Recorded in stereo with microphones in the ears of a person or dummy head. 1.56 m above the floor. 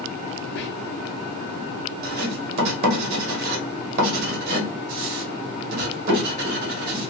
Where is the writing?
50° right (ahead or behind), 1.3 m.